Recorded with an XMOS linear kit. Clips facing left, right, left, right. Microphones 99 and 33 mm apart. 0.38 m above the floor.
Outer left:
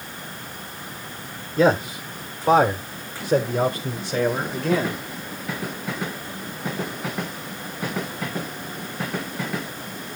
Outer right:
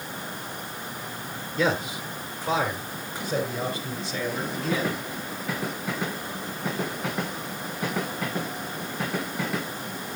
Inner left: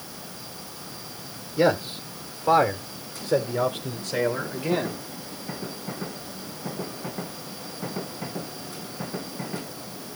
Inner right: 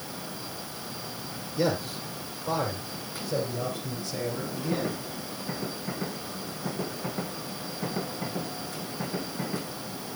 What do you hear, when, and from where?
1.6 s a man speaking: 25° left (ahead or behind), 1.0 m; by 5.0 s 40° left (ahead or behind), 2 m